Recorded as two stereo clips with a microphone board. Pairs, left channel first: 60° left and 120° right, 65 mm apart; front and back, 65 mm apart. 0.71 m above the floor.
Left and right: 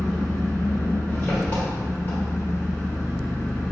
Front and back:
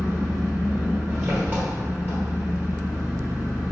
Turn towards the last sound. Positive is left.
turn(degrees=120)